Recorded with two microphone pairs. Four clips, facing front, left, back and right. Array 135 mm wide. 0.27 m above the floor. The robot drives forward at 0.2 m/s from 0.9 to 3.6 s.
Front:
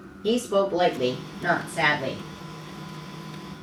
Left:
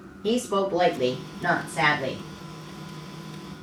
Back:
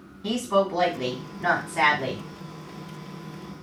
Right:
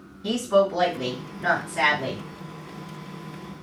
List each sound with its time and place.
0.2 s a woman speaking: 165° left, 2.5 m; by 2.2 s 170° left, 2.5 m